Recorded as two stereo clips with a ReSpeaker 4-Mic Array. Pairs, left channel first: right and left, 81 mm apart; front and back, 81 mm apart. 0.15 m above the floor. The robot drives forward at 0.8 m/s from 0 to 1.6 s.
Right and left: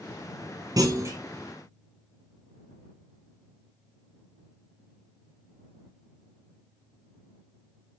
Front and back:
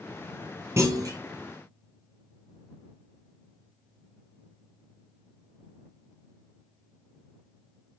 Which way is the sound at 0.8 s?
125° left.